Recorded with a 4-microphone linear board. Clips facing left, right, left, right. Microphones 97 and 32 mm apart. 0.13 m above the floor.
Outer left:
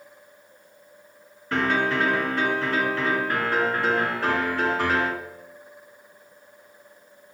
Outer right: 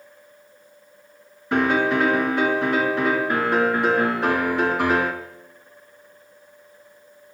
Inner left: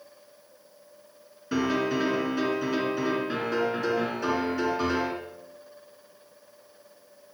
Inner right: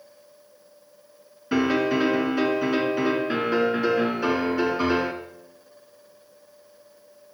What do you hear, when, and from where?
1.5 s a piano: 20° right (ahead or behind), 1.9 m